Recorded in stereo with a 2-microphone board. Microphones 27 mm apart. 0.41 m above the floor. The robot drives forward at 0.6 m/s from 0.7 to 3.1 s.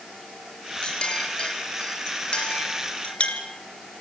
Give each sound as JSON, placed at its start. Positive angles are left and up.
{"t": 0.8, "sound": "a clink", "side_deg": 35, "distance_m": 5.0}